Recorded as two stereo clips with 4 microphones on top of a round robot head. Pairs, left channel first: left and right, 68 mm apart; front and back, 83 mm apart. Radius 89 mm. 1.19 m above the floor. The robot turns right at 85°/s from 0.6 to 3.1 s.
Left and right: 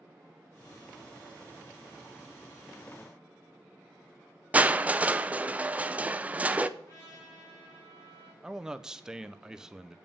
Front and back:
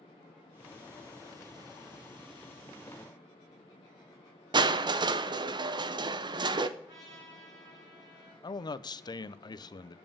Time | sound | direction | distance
4.5 | crushing | 160° right | 0.7 m
6.8 | a trumpet | 140° left | 4.5 m
8.4 | a man speaking | 10° right | 0.6 m